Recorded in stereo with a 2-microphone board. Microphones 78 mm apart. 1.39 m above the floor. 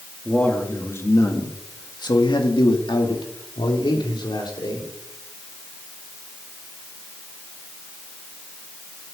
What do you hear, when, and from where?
0.2 s a man speaking: 15° left (ahead or behind), 2 m; by 4.9 s 70° left (ahead or behind), 4 m